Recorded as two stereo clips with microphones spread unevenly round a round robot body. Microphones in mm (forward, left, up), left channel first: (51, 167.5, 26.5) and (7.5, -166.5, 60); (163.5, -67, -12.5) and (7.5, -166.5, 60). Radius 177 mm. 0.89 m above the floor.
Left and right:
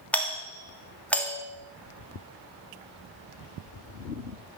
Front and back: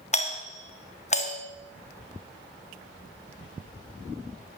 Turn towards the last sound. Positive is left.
turn(degrees=0)